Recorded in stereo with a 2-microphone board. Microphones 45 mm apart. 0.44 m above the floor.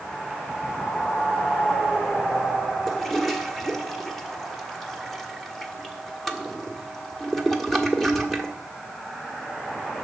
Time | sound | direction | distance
2.9 | a toilet flushing | 5° left (ahead or behind) | 1.5 m